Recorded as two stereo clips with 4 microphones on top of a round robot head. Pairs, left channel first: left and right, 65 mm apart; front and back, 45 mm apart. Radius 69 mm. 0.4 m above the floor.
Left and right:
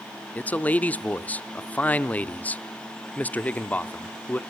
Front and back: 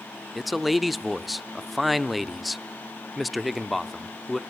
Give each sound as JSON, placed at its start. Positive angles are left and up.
{"t": 0.3, "sound": "a man speaking", "azimuth_deg": 95, "distance_m": 0.8}